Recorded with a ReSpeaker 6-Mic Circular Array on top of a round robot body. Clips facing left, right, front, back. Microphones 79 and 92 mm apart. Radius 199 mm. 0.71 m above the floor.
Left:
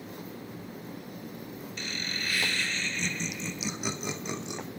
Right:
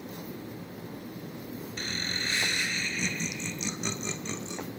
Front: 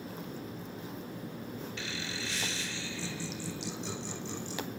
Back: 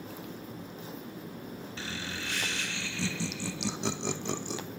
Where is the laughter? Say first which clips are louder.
Right 1 dB, back 1 dB; 135° right, 1.5 m; by 4.6 s 160° left, 2.5 m.